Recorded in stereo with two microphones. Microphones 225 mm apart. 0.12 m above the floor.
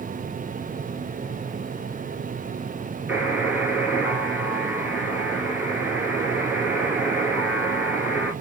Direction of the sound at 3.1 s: 5° right (ahead or behind).